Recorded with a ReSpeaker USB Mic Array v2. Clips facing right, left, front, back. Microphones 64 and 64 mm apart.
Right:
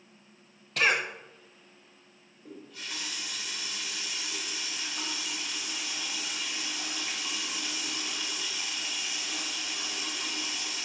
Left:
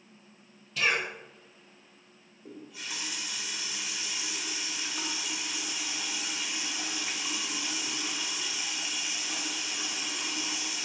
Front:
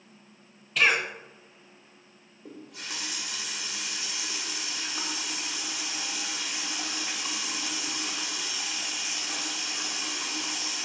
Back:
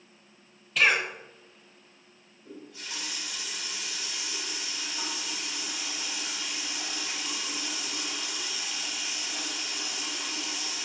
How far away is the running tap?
About 1.2 m.